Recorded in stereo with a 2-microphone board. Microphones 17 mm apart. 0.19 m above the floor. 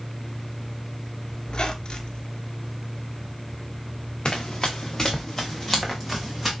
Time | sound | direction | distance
1.5 | a squeak | 55° left (ahead or behind) | 0.7 m
4.2 | running footsteps | 40° left (ahead or behind) | 1.0 m